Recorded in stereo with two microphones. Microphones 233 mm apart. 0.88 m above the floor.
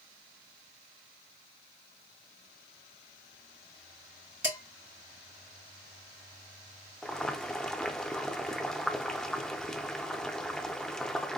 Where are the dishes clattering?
55° right (ahead or behind), 3 m.